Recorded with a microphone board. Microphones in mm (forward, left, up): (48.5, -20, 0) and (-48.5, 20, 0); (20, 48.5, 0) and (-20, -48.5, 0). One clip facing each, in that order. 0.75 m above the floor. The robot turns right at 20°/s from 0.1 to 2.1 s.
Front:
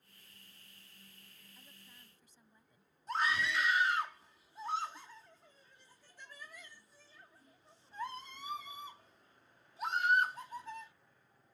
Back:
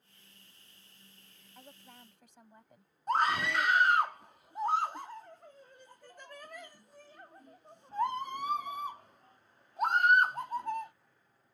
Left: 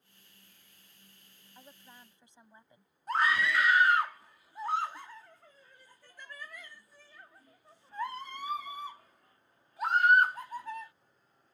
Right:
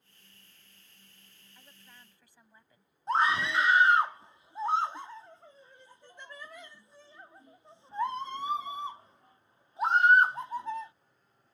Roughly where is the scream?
Behind.